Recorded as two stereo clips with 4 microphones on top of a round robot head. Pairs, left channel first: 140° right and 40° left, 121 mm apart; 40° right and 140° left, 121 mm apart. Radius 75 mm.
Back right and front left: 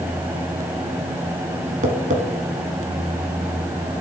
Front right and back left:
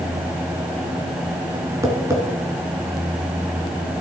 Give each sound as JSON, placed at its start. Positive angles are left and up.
{"t": 1.8, "sound": "tapping", "azimuth_deg": 70, "distance_m": 1.6}